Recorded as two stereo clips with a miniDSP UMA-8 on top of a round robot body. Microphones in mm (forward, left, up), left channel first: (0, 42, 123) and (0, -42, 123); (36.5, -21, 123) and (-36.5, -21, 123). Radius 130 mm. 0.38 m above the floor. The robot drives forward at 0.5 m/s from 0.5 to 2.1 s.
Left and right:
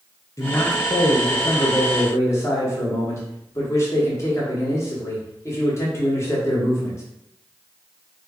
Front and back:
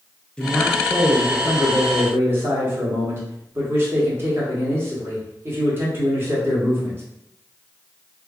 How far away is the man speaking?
About 1.1 m.